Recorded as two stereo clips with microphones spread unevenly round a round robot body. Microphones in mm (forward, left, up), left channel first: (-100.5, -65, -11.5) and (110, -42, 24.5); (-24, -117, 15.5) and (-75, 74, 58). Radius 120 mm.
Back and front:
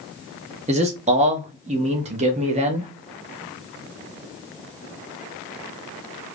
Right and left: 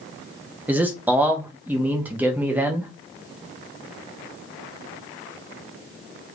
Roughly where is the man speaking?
Ahead.